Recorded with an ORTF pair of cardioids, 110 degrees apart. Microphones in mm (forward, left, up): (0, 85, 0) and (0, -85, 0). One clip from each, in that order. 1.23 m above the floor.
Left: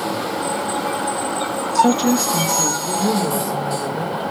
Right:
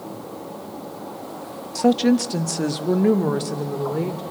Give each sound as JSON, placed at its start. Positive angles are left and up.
{"t": 1.8, "sound": "a woman speaking", "azimuth_deg": 5, "distance_m": 1.1}